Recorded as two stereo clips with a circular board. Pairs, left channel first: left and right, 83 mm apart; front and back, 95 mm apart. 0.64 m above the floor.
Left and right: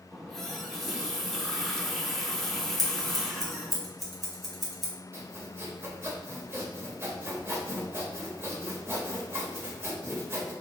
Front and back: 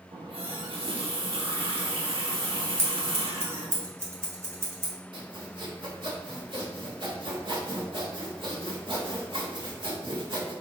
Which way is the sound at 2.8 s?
175° left.